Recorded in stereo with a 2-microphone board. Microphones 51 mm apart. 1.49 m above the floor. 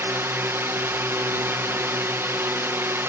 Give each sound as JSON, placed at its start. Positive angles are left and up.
{"t": 0.0, "sound": "a drone", "side_deg": -50}